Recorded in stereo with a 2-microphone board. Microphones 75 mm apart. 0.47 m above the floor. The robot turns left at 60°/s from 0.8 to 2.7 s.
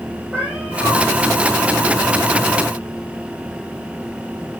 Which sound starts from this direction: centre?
A cat meowing, at 0.3 s.